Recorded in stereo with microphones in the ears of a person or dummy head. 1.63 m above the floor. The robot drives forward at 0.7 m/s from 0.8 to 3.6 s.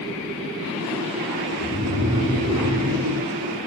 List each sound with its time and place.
1.6 s snoring: 85° right, 3 m; by 3.3 s 70° right (ahead or behind), 3.5 m